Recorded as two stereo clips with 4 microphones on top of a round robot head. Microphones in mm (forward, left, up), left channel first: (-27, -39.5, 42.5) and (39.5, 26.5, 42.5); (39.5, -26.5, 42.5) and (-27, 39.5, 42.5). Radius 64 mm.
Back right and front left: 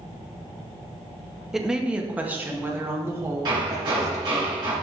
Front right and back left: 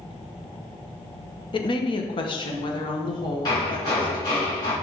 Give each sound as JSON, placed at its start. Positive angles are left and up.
{"t": 1.5, "sound": "a woman speaking", "azimuth_deg": -40, "distance_m": 1.0}
{"t": 3.5, "sound": "hammering", "azimuth_deg": 0, "distance_m": 3.5}